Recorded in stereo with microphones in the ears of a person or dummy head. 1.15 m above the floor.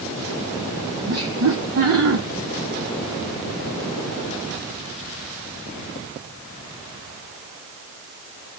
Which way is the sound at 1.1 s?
80° right.